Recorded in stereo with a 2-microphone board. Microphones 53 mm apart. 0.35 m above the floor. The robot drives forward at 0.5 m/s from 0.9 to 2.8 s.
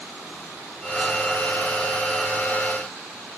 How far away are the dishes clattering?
I don't hear dishes clattering.